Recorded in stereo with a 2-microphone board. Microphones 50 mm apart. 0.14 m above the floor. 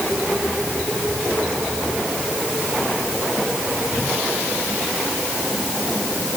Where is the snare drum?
I don't hear a snare drum.